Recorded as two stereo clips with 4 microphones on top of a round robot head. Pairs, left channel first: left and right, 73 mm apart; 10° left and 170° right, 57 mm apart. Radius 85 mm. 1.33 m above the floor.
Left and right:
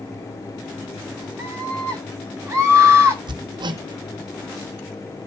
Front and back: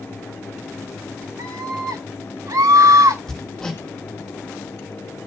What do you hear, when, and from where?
1.4 s a scream: 155° right, 9.5 m
3.3 s hammering: 75° right, 1.2 m